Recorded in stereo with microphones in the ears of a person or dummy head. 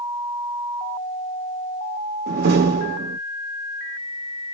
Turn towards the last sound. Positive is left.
turn(degrees=-60)  # may be behind; listen again after turning